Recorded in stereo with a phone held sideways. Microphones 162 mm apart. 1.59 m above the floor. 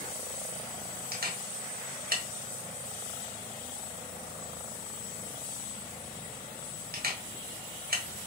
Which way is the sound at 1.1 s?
70° right (ahead or behind).